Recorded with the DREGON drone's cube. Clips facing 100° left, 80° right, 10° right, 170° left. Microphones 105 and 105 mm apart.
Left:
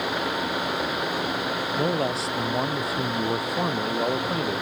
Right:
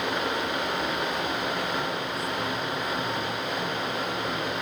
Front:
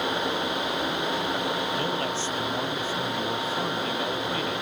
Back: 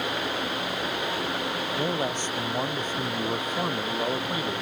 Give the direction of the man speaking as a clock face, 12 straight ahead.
9 o'clock.